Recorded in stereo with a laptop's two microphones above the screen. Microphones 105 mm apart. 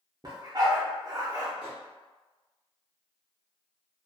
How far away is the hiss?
I don't hear a hiss.